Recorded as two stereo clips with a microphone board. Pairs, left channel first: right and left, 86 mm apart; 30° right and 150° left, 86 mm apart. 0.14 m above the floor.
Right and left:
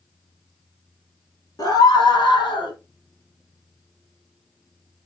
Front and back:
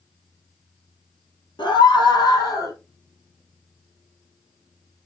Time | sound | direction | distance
1.6 | a scream | 50° right | 3.5 m